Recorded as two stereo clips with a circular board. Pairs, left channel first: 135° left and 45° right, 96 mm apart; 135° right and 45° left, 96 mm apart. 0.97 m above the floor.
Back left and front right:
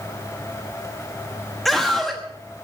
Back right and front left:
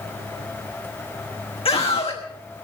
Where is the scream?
140° right, 1.3 m.